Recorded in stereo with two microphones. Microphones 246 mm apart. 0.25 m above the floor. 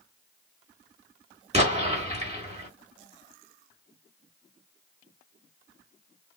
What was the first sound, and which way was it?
An explosion, 25° right (ahead or behind).